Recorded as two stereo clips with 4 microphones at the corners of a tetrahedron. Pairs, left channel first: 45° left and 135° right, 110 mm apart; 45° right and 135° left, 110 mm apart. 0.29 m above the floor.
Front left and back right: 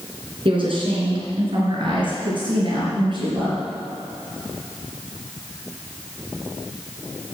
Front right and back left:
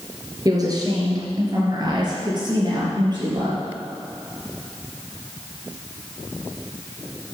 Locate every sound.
0.5 s a woman speaking: 170° right, 3.5 m; by 3.6 s straight behind, 5.5 m